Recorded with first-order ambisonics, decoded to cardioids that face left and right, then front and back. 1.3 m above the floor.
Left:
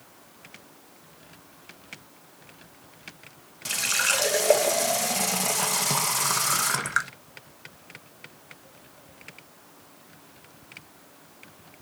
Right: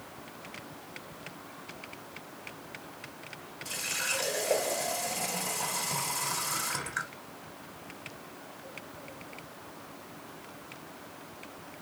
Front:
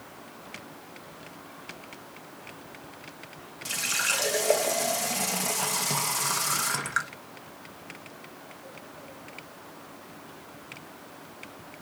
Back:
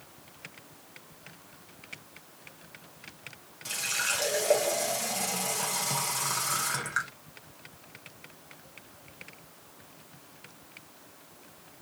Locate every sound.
3.6 s a running tap: 75° left, 0.8 m